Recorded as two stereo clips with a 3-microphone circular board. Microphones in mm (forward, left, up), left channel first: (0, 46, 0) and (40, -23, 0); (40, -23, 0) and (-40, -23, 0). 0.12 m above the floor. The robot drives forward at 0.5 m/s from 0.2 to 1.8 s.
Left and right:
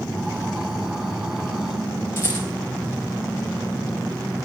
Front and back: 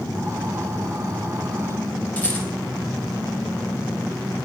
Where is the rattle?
65° left, 5 m.